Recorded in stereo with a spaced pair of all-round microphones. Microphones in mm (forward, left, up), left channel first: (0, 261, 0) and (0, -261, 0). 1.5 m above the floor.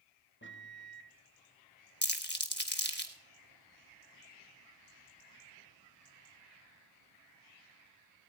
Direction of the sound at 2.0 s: 20° left (ahead or behind).